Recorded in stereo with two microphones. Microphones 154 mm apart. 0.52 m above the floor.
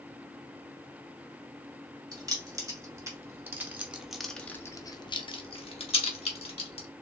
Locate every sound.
2.1 s keys jangling: 25° right (ahead or behind), 1.6 m; by 6.9 s 40° left (ahead or behind), 1.3 m